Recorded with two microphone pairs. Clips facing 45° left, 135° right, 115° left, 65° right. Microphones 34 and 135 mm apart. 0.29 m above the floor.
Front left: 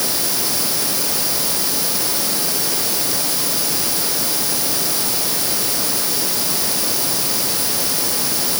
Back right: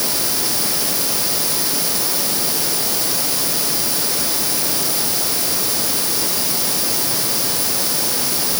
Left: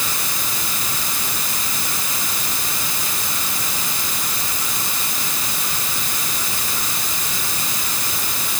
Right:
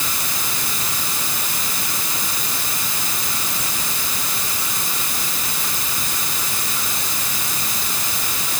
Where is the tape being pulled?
No tape being pulled in this recording.